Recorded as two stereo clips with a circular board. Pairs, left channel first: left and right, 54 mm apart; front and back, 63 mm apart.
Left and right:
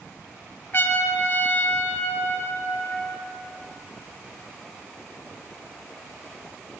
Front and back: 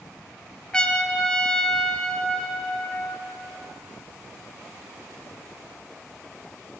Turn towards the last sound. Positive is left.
turn(degrees=70)